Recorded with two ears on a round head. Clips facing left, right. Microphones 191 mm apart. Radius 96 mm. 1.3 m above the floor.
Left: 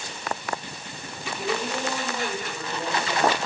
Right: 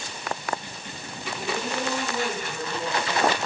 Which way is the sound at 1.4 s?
10° left (ahead or behind).